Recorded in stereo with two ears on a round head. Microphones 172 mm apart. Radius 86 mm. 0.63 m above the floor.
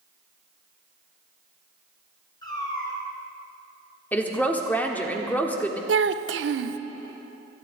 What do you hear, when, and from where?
2.4 s a cat meowing: 25° left (ahead or behind), 3.5 m
4.1 s a woman speaking: 10° left (ahead or behind), 1.4 m
5.9 s a child speaking: 65° right (ahead or behind), 0.6 m